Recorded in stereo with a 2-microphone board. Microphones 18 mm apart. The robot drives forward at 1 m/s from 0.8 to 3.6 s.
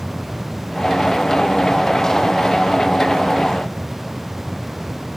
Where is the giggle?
I don't hear a giggle.